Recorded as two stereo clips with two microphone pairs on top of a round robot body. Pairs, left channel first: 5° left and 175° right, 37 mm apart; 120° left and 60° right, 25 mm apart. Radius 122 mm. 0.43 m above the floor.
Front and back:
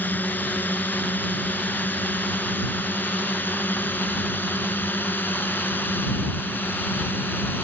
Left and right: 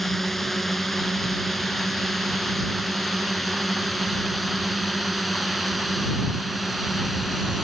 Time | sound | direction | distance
0.0 | a drone | 40° left | ?